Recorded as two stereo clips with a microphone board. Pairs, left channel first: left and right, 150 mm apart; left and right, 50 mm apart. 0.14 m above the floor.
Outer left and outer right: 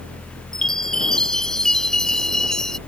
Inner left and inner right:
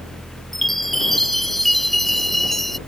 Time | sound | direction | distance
0.5 | a chime | 5° left (ahead or behind) | ?